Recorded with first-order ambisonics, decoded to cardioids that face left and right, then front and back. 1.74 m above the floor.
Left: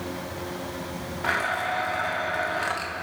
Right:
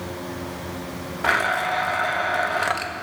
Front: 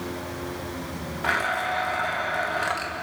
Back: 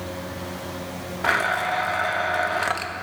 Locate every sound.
1.2 s a blender: 125° right, 0.8 m